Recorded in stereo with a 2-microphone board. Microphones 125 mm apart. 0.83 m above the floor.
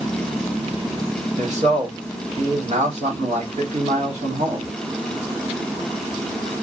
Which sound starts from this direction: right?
A man speaking, at 1.4 s.